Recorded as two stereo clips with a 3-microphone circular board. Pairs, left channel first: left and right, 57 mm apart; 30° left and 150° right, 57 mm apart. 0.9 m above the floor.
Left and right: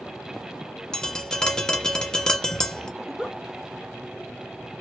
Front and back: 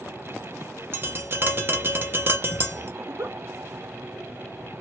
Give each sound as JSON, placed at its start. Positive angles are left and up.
{"t": 0.9, "sound": "tapping", "azimuth_deg": 165, "distance_m": 0.7}
{"t": 3.0, "sound": "a giggle", "azimuth_deg": 180, "distance_m": 0.8}